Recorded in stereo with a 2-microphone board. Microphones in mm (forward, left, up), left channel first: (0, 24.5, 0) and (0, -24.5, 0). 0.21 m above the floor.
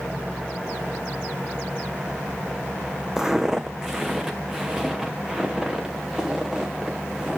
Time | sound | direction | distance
3.2 | footsteps | 10° right (ahead or behind) | 0.6 m